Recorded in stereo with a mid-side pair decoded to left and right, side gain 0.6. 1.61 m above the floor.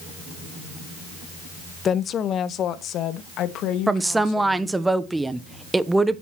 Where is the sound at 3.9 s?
10° right, 1.3 m.